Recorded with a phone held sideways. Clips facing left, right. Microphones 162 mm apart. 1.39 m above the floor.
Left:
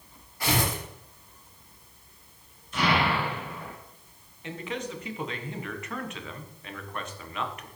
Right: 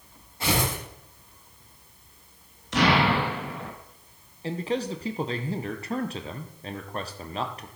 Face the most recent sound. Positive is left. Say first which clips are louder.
# right 6 dB
turn(degrees=-35)  # may be behind; listen again after turning